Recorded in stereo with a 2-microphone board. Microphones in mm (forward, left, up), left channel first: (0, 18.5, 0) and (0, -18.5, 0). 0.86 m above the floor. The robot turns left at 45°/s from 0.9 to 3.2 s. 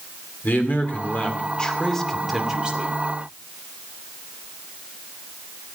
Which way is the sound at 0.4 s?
55° left.